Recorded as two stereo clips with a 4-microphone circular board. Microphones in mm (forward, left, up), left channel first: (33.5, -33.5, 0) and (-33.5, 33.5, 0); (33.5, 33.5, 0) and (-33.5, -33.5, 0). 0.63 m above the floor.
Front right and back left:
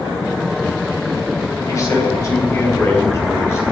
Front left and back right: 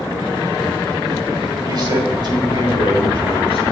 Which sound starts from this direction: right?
A man speaking, at 1.7 s.